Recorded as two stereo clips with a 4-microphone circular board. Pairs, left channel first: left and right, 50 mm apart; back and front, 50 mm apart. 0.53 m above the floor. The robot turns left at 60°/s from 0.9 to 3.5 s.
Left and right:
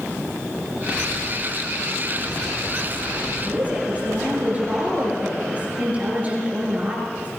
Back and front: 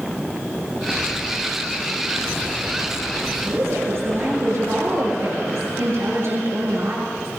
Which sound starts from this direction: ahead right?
A woman speaking, at 3.5 s.